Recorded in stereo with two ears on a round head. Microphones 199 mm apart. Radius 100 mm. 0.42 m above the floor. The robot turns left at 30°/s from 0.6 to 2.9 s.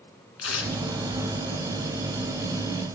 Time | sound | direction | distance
0.4 | tearing paper | 70° left (ahead or behind) | 1.8 m